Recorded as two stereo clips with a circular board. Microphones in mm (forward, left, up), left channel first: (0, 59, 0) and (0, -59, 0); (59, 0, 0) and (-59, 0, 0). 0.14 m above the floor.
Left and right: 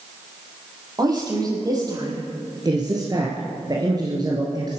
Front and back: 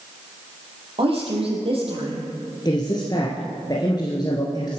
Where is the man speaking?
45° right, 2.5 m.